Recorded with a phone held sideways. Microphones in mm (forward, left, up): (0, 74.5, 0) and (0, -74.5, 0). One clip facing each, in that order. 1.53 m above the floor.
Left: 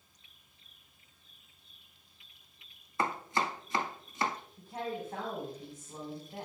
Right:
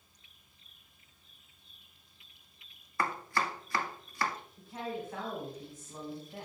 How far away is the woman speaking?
About 4 m.